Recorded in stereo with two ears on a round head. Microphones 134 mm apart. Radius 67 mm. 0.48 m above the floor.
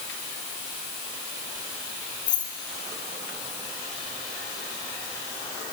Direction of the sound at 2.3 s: 60° left (ahead or behind).